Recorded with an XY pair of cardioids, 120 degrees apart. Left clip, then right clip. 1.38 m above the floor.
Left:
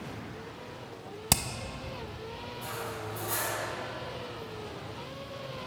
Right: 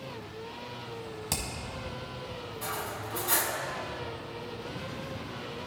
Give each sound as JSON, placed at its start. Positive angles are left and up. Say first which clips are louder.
{"t": 1.3, "sound": "hammering", "louder": "left 6 dB", "azimuth_deg": 50, "distance_m": 0.9}
{"t": 2.6, "sound": "cutlery clinking", "louder": "right 2 dB", "azimuth_deg": -55, "distance_m": 1.6}